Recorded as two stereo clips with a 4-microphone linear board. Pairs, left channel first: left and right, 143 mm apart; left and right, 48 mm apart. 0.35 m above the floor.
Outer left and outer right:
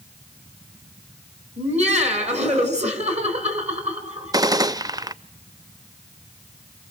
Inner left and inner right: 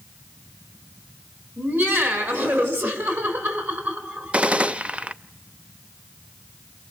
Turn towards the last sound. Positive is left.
turn(degrees=-25)  # may be behind; listen again after turning